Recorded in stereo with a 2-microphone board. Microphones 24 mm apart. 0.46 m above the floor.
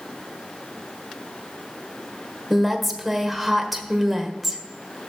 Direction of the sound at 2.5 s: Centre (ahead or behind).